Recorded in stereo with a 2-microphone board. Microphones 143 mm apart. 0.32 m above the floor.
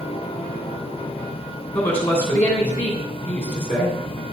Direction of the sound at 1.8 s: 15° left (ahead or behind).